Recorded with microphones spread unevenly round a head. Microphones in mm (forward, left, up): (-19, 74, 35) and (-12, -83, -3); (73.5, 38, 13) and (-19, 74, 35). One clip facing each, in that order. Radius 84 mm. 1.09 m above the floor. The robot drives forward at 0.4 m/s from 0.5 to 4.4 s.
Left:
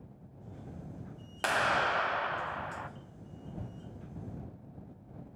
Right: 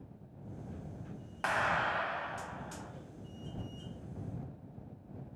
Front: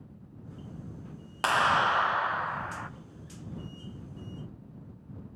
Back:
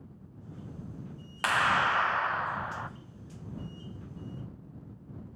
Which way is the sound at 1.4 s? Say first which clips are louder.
Left 3 dB, front 2 dB; 35° left.